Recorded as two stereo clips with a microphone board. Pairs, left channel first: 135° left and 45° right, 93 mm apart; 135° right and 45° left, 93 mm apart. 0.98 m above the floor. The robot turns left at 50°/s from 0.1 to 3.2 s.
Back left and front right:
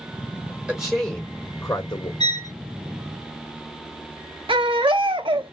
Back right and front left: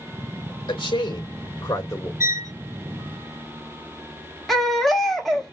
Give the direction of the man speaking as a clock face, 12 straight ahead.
4 o'clock.